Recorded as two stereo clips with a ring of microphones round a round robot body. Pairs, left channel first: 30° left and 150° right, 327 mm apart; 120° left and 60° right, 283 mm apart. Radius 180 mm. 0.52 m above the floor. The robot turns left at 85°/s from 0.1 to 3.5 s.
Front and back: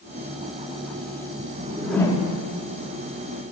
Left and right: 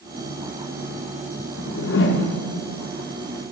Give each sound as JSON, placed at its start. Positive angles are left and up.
{"t": 1.6, "sound": "a whoosh", "azimuth_deg": 145, "distance_m": 0.7}